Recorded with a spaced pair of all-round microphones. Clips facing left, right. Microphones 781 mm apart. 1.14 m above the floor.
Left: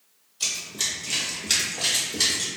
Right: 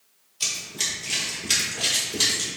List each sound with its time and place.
0.4 s running footsteps: 15° right (ahead or behind), 1.2 m; by 2.5 s 45° right (ahead or behind), 1.7 m